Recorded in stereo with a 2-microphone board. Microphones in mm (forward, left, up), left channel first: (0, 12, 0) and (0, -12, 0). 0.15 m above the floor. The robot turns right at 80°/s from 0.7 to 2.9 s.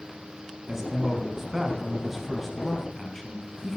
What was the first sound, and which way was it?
A man speaking, 20° right (ahead or behind).